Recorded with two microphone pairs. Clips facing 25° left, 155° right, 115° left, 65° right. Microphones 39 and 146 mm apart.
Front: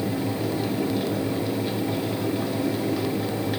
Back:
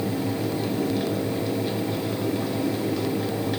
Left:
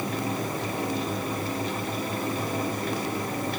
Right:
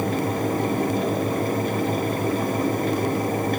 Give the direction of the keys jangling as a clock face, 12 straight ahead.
No keys jangling in this recording.